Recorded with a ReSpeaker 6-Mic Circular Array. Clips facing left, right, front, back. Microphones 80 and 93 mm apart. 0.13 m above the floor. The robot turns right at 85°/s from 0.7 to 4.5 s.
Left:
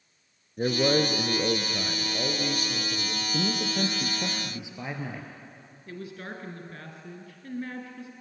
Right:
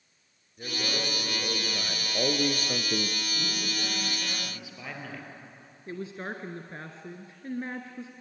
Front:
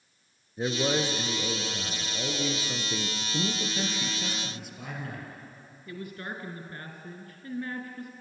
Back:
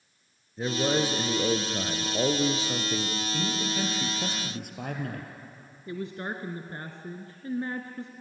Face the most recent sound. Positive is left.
turn(degrees=-135)